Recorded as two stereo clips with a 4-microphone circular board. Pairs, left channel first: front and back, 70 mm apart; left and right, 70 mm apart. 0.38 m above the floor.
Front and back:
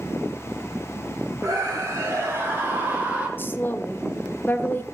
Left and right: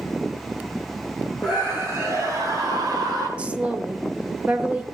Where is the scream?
155° right, 3 m; by 3.3 s 105° right, 4 m.